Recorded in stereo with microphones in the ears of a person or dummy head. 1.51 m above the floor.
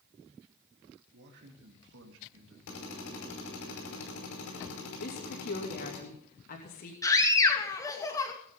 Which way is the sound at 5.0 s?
45° left (ahead or behind).